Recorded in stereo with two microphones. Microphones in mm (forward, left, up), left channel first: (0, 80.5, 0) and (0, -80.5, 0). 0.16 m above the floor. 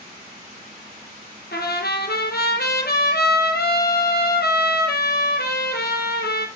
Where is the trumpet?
75° left (ahead or behind), 1.5 m.